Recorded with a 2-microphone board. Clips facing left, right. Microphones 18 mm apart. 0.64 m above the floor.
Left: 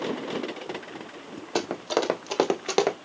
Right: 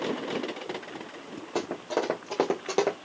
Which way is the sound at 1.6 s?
60° left (ahead or behind).